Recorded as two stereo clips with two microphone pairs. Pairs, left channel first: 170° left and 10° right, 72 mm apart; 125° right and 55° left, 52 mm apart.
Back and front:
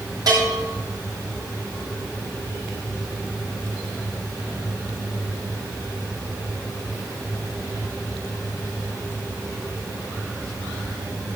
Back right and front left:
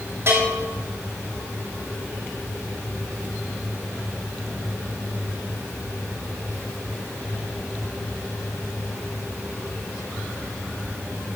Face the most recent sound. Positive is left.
turn(degrees=20)